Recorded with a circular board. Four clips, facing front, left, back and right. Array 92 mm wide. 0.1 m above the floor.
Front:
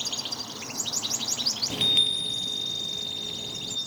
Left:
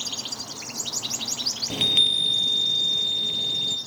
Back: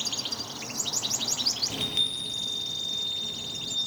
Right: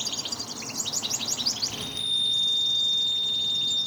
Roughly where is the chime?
Left.